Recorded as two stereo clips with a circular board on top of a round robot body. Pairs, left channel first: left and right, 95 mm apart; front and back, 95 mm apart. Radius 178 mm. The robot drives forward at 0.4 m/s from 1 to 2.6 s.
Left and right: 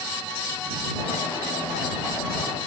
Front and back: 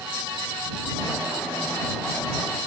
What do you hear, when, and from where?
Only background noise.